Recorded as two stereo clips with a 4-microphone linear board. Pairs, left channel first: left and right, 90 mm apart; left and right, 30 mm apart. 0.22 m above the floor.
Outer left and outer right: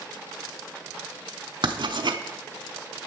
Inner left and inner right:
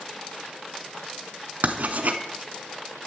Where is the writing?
65° right (ahead or behind), 0.7 m.